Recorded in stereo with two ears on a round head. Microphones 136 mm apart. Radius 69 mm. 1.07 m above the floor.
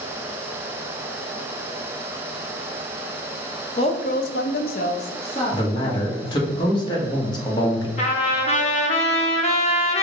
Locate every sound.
3.8 s a woman speaking: 35° left (ahead or behind), 0.7 m; by 6.5 s 25° left (ahead or behind), 1.9 m
5.5 s a man speaking: 30° left (ahead or behind), 1.4 m
8.0 s a trumpet: 40° left (ahead or behind), 0.8 m